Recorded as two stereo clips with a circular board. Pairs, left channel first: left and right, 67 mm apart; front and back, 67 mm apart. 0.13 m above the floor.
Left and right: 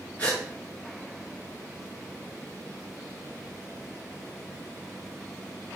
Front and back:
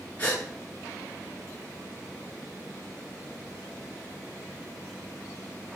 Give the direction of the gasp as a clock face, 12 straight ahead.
11 o'clock.